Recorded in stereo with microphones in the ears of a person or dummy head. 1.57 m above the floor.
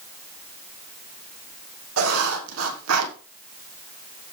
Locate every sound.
2.0 s writing: 85° right, 2.5 m